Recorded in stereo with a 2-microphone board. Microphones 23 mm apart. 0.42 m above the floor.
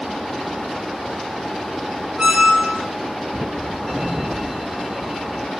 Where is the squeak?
30° right (ahead or behind), 1.3 m.